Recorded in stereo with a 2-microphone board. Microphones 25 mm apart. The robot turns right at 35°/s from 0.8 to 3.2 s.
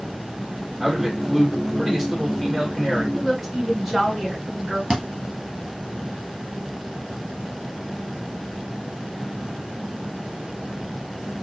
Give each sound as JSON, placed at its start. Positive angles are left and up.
{"t": 0.8, "sound": "a man speaking", "side_deg": -15, "distance_m": 1.4}
{"t": 3.1, "sound": "a woman speaking", "side_deg": -10, "distance_m": 1.7}
{"t": 4.9, "sound": "a thud", "side_deg": -25, "distance_m": 1.6}